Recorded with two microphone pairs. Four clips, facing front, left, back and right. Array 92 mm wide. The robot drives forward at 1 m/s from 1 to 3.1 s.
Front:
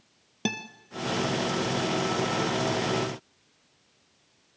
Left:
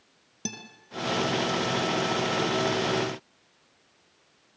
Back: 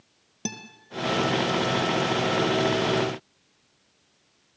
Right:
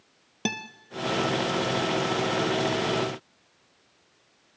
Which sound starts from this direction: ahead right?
A guitar, at 0.5 s.